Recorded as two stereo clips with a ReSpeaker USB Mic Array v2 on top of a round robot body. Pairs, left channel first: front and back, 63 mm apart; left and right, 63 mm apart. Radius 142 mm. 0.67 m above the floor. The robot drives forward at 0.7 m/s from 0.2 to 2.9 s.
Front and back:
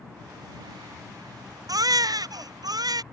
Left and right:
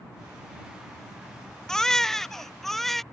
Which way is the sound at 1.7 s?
170° left.